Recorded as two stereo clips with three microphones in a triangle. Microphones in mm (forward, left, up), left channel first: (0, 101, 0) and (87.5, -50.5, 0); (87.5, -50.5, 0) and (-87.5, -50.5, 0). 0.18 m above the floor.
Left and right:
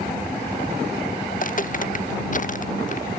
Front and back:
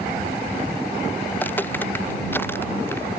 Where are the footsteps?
80° left.